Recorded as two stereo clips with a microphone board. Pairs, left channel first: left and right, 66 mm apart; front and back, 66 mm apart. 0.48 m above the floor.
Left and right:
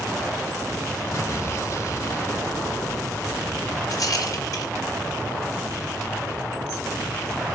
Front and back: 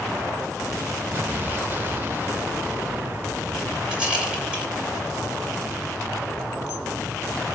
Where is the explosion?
125° left, 1.0 m.